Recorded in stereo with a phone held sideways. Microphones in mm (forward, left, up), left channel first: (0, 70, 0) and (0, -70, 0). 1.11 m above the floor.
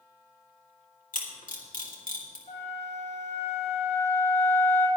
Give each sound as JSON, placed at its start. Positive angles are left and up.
{"t": 1.1, "sound": "a camera shutter", "side_deg": 70, "distance_m": 2.5}
{"t": 2.5, "sound": "a flute", "side_deg": 50, "distance_m": 5.0}